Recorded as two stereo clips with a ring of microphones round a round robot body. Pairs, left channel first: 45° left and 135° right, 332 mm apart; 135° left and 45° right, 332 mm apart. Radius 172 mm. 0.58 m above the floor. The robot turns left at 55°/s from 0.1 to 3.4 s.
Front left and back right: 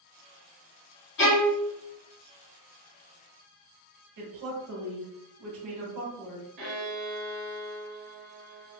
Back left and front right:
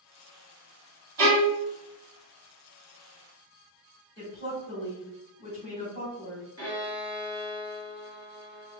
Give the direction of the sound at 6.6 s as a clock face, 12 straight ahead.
4 o'clock.